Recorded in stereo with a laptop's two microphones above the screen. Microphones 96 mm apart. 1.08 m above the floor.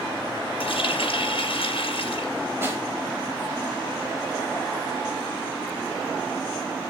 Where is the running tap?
70° left (ahead or behind), 2 m.